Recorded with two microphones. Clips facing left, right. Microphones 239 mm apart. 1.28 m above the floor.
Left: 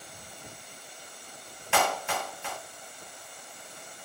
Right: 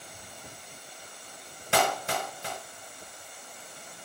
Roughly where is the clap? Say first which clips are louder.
Right 1 dB; right.